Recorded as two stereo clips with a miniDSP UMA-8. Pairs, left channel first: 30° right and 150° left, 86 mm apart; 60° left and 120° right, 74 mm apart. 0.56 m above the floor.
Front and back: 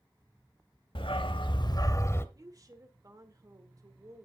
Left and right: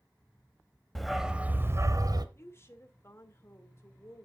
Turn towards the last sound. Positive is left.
turn(degrees=110)